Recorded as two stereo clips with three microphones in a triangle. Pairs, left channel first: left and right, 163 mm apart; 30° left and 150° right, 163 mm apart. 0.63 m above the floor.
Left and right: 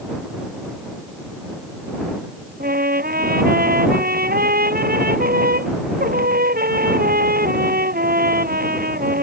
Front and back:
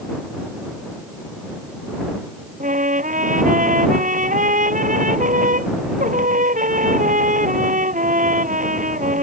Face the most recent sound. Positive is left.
turn(degrees=-115)